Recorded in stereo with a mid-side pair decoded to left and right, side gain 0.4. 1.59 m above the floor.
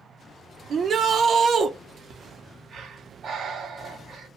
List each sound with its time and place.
0.7 s a shout: 55° right, 0.7 m
2.1 s breathing: 65° right, 0.7 m